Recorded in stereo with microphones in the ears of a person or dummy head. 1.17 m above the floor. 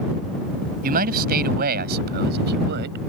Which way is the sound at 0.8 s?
50° right (ahead or behind).